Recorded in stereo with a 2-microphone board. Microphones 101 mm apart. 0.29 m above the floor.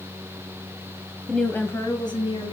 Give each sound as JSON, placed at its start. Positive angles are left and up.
{"t": 1.3, "sound": "a woman speaking", "side_deg": 5, "distance_m": 1.4}